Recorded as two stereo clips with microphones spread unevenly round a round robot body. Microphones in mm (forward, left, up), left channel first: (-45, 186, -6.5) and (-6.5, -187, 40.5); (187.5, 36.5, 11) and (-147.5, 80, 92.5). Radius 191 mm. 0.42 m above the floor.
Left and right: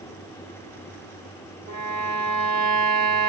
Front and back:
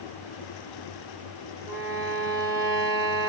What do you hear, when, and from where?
1.7 s a violin: 130° right, 1.2 m